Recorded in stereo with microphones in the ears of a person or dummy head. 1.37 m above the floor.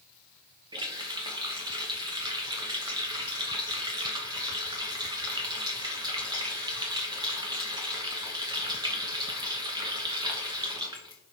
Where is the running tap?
20° right (ahead or behind), 0.6 m.